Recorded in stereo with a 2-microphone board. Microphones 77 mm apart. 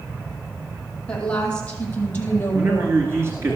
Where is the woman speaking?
15° left (ahead or behind), 3.5 m; by 3.5 s 40° left (ahead or behind), 3 m.